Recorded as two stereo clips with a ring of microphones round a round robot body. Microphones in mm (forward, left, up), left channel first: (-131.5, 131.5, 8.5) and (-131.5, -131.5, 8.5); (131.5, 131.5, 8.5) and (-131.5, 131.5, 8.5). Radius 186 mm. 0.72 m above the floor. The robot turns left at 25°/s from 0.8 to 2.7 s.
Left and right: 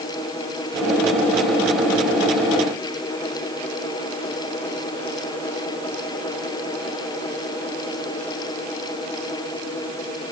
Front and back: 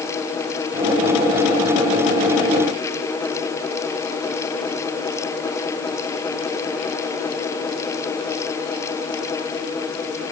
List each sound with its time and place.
Only background noise.